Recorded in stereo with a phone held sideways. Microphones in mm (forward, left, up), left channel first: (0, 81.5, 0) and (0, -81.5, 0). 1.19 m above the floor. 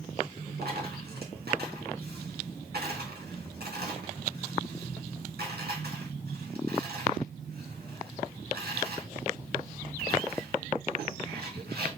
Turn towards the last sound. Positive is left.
turn(degrees=-85)